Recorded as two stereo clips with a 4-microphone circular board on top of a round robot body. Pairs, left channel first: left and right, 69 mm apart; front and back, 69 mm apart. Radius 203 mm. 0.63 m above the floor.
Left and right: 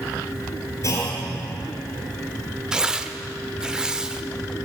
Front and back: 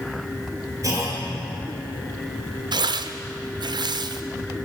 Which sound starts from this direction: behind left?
A clunk, at 0.8 s.